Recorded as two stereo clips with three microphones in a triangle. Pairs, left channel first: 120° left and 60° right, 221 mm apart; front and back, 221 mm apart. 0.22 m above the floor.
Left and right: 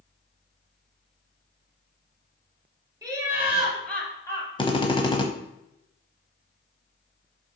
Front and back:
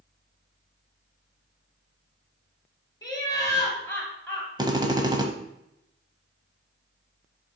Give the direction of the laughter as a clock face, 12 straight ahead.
1 o'clock.